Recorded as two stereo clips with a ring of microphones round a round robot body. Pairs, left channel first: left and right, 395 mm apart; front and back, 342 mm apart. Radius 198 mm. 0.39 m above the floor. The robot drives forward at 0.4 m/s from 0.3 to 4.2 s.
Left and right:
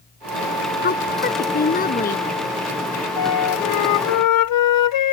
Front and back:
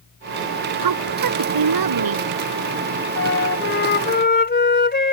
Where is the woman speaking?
155° left; by 2.2 s 160° left.